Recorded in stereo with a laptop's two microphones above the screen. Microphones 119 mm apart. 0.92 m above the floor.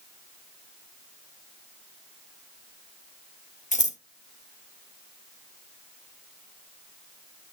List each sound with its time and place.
3.7 s scissors: 75° left (ahead or behind), 0.7 m